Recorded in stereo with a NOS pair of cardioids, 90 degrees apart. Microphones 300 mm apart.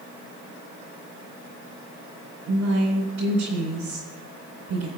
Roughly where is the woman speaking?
Ahead right.